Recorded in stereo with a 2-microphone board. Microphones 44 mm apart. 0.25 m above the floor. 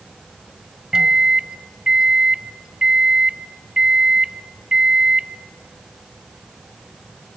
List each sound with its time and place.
0.9 s a microwave: 15° right (ahead or behind), 0.8 m